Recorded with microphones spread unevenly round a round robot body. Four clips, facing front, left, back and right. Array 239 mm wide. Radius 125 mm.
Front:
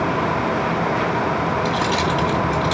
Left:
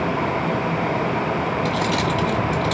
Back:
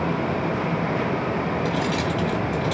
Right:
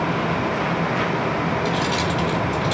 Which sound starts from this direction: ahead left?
Keys jangling, at 1.6 s.